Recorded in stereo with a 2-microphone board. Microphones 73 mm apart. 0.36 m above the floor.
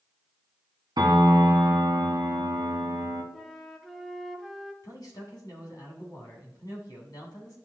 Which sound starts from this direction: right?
A piano, at 1.0 s.